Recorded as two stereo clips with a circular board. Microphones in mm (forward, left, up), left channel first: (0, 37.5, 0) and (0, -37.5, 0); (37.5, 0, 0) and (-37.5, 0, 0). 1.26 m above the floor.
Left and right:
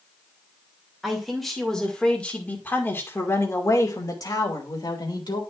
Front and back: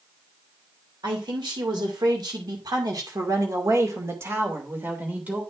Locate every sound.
1.0 s a man speaking: 175° right, 2 m; by 5.4 s 110° left, 2.5 m